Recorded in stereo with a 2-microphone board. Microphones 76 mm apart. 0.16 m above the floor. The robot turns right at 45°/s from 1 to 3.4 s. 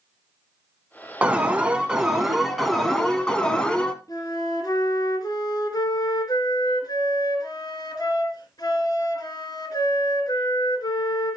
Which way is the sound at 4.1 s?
55° left (ahead or behind).